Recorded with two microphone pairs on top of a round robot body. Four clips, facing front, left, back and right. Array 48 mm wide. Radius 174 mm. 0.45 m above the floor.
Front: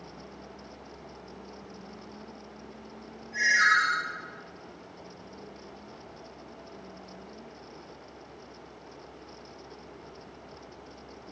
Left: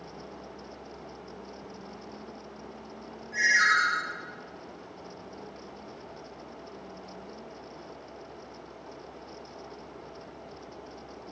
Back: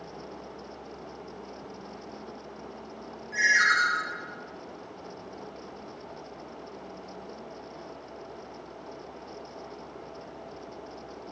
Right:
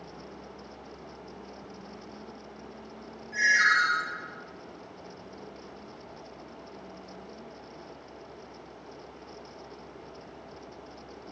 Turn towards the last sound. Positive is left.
turn(degrees=170)